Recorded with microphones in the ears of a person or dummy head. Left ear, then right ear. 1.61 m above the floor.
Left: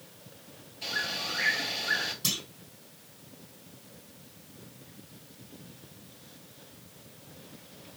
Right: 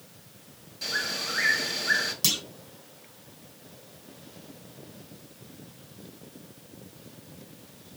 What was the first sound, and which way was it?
A bird, 60° right (ahead or behind).